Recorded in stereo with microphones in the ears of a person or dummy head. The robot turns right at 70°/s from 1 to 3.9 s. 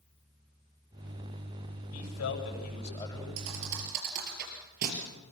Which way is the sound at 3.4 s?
75° right (ahead or behind).